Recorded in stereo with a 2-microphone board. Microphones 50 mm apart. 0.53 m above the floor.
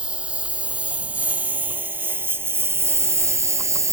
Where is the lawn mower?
20° right (ahead or behind); by 3.9 s 85° right.